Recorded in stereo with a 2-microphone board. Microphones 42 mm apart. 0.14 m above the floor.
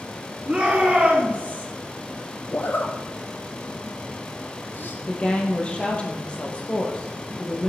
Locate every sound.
0.5 s a shout: 20° right (ahead or behind), 2 m; by 1.7 s 35° right (ahead or behind), 3 m
2.5 s a zipper: 50° left (ahead or behind), 1.3 m
5.1 s a woman speaking: 25° left (ahead or behind), 3 m